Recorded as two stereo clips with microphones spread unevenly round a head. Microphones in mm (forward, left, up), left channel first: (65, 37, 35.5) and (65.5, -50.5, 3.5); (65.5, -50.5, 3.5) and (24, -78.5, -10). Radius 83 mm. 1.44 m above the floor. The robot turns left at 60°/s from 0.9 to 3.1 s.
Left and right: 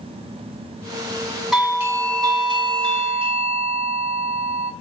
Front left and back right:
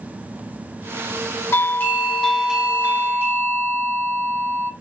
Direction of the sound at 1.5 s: 10° right.